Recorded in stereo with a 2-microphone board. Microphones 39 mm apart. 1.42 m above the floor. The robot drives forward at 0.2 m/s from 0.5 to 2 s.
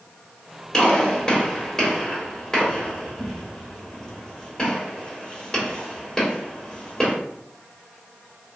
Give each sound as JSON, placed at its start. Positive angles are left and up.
{"t": 0.7, "sound": "a gunshot", "side_deg": 20, "distance_m": 1.5}